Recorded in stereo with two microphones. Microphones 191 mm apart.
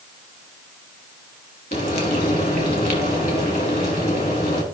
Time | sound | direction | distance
1.7 | frying | 55° left (ahead or behind) | 1.9 m